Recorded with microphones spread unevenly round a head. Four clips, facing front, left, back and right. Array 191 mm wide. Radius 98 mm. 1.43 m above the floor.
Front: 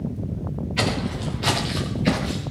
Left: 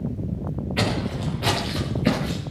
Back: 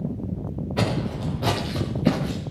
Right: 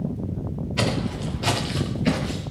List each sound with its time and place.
0.8 s footsteps: 160° left, 7 m; by 2.4 s 155° left, 5 m